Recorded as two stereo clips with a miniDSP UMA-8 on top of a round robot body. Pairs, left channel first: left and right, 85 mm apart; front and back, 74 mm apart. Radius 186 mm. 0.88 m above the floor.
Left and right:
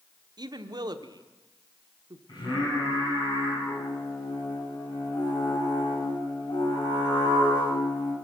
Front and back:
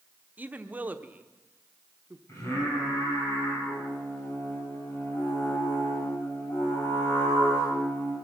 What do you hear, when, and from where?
0.4 s a woman speaking: 115° right, 1.2 m
2.3 s singing: 50° left, 9.5 m